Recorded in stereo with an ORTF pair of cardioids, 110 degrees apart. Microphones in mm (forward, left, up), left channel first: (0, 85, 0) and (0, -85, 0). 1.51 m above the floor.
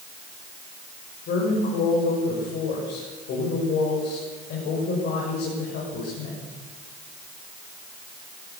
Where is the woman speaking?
70° left, 7 m.